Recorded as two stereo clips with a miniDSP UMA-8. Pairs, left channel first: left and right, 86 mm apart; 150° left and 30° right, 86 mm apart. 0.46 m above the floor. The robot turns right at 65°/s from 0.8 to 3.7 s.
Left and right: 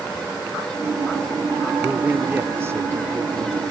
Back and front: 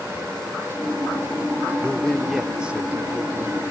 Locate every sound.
1.8 s a man speaking: 150° right, 0.8 m; by 3.6 s 35° right, 0.8 m